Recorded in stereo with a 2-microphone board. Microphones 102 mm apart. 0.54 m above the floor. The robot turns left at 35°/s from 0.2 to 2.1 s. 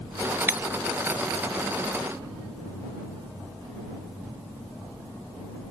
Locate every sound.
0.5 s breaking glass: 20° right (ahead or behind); by 0.6 s 15° right (ahead or behind)